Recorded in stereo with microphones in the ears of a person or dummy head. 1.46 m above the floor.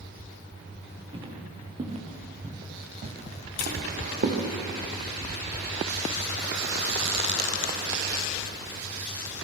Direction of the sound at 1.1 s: 30° right (ahead or behind).